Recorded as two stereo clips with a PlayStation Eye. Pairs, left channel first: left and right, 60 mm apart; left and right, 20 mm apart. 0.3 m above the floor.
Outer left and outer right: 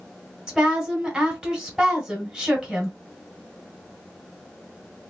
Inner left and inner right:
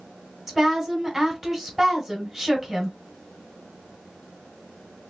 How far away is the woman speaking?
About 1.6 m.